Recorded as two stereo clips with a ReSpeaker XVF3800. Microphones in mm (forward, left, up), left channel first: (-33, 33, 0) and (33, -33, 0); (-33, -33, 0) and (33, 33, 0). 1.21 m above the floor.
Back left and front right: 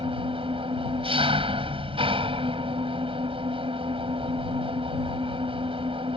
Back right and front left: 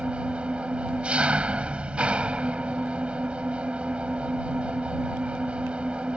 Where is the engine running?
35° right.